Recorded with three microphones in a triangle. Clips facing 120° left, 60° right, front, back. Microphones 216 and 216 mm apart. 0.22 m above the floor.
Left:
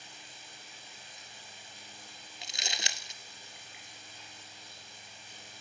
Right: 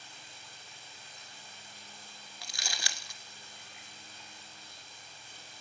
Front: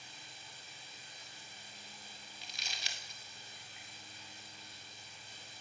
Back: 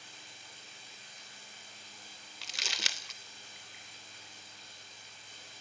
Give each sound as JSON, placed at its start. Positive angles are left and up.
{"t": 0.0, "sound": "running water", "azimuth_deg": -165, "distance_m": 3.5}
{"t": 2.4, "sound": "crumpling", "azimuth_deg": -175, "distance_m": 0.6}